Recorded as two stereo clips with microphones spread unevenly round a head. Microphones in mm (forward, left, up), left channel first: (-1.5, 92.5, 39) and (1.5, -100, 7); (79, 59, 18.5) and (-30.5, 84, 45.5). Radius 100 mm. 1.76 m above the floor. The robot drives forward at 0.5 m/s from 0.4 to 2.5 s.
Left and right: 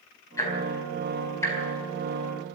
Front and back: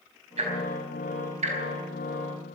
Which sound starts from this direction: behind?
Ticking, at 0.4 s.